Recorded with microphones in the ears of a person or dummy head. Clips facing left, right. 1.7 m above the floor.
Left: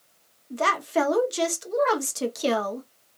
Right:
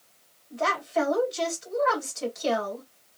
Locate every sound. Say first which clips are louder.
0.5 s a woman speaking: left 2 dB; 60° left (ahead or behind), 1.0 m